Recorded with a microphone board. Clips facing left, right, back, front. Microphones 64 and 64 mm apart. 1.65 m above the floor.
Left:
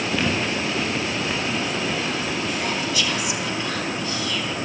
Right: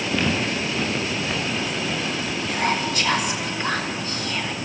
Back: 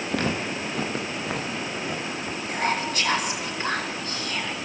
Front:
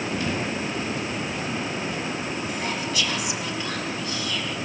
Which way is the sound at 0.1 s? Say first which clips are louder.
Right 1 dB, back 3 dB; 175° left.